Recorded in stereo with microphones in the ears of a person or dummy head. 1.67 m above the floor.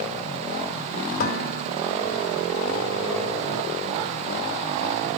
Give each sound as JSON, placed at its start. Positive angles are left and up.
{"t": 1.2, "sound": "dishes clattering", "side_deg": 55, "distance_m": 4.5}